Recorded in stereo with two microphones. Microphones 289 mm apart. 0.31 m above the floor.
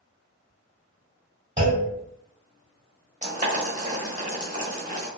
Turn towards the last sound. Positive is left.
turn(degrees=-25)  # may be behind; listen again after turning